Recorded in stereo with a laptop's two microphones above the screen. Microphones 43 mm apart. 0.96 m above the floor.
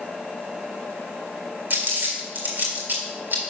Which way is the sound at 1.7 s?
55° right (ahead or behind).